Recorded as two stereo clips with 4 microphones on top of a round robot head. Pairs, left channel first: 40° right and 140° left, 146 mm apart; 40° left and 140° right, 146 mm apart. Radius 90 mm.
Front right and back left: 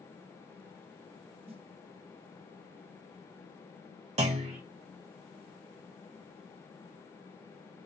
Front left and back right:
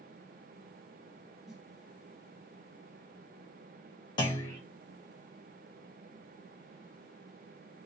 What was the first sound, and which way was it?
A snare drum, 135° left.